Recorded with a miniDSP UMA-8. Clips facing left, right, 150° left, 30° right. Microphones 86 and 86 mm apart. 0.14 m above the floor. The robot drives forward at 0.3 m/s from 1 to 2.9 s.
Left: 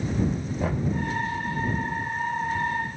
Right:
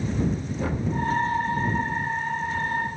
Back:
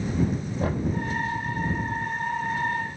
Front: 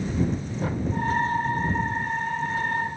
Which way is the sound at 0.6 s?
170° left.